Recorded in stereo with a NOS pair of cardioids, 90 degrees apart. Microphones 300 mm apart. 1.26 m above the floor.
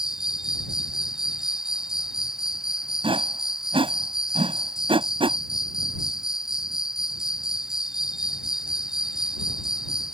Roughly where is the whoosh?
Ahead.